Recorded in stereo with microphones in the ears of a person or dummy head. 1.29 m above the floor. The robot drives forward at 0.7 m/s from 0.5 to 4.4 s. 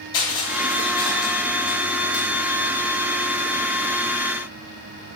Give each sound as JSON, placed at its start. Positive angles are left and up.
{"t": 0.1, "sound": "crushing", "side_deg": 25, "distance_m": 3.0}